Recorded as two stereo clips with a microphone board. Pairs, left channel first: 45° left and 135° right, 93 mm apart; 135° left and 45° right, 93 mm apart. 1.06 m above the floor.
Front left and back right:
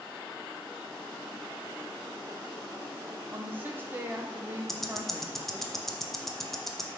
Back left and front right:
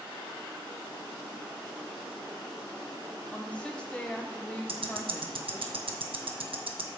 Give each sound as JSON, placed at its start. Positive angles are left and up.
{"t": 3.3, "sound": "a woman speaking", "azimuth_deg": -165, "distance_m": 0.5}
{"t": 4.7, "sound": "ticking", "azimuth_deg": -40, "distance_m": 0.6}